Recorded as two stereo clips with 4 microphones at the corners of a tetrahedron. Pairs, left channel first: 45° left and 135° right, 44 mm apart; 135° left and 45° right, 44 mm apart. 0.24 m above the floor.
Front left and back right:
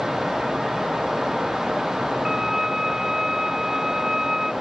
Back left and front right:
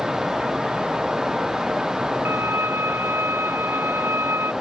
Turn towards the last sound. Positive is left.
turn(degrees=-55)